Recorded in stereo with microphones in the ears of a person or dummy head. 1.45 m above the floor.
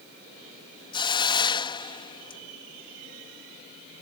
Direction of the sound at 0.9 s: 20° left (ahead or behind).